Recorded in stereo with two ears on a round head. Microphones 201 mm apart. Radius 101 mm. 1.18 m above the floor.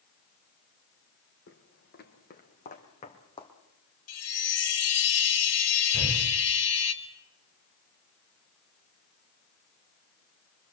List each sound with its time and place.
1.5 s footsteps: 50° left (ahead or behind), 3 m; by 3.5 s 20° left (ahead or behind), 3.5 m
4.1 s a chime: 70° left (ahead or behind), 2.5 m
5.9 s breathing: 15° left (ahead or behind), 5 m